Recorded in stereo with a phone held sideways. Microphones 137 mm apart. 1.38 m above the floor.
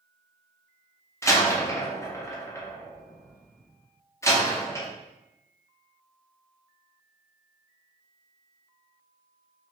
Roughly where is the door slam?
Centre.